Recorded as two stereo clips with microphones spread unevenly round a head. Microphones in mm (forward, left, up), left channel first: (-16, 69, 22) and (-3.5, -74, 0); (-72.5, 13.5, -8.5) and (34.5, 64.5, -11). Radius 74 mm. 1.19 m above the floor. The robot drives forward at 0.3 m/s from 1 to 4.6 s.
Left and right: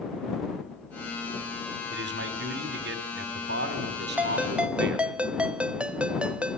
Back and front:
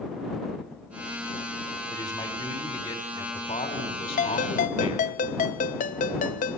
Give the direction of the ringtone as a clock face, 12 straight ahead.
6 o'clock.